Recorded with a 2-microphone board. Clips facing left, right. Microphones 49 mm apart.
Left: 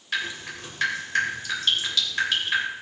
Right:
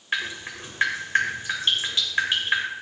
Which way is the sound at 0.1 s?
25° right (ahead or behind).